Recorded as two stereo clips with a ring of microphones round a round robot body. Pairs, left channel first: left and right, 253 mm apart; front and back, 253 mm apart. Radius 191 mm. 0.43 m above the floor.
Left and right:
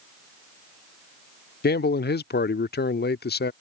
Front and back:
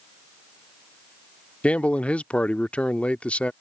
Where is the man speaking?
85° left.